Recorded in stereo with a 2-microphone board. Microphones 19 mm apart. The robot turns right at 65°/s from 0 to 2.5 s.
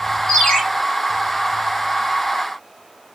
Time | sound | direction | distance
0.3 | a ringtone | 45° left (ahead or behind) | 2 m